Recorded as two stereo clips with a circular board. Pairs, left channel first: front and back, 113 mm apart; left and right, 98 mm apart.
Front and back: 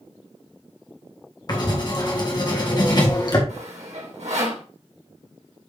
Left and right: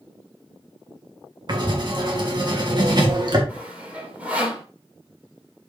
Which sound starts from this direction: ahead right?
Writing, at 1.5 s.